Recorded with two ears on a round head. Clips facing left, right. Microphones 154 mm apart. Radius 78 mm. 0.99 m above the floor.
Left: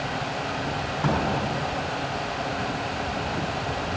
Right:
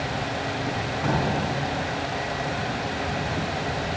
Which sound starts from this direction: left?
A drawer, at 1.0 s.